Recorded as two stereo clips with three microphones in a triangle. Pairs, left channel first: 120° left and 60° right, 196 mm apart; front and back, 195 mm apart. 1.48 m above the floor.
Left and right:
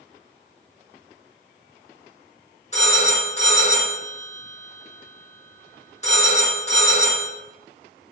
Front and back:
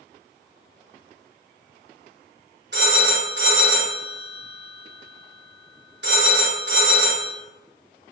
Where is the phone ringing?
170° left, 1.2 m.